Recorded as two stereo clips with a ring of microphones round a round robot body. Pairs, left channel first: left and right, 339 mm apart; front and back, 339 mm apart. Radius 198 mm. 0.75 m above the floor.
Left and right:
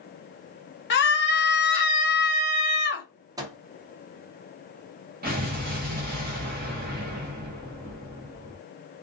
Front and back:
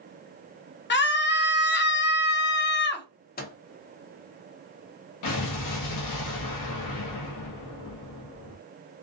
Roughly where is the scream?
Ahead left.